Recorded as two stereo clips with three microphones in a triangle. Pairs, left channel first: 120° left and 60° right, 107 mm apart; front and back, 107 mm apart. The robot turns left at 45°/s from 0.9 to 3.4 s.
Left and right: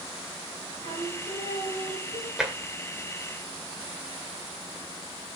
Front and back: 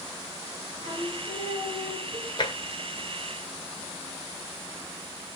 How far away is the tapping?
About 2 m.